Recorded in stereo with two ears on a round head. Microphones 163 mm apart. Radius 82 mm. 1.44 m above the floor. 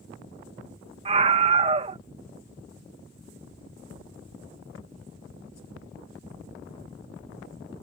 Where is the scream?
35° right (ahead or behind).